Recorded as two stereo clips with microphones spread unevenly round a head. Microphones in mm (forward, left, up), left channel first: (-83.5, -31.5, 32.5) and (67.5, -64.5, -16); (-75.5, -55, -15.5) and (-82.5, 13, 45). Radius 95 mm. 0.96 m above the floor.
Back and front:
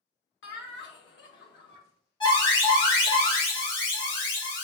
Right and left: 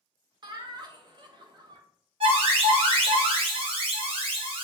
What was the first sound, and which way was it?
Laughter, 150° left.